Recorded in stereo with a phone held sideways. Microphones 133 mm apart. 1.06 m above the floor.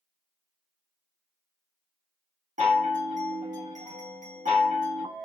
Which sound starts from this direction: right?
A chime, at 2.6 s.